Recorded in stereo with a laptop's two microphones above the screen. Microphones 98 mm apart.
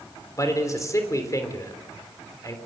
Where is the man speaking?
30° left (ahead or behind), 3.5 m.